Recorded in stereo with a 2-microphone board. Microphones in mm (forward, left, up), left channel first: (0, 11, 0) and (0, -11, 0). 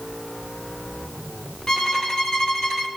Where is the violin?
25° left (ahead or behind), 1.0 m.